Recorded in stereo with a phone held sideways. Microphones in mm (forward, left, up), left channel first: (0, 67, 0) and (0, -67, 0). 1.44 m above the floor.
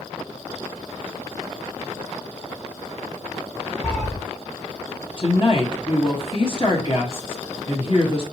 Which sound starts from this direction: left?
A woman speaking, at 5.2 s.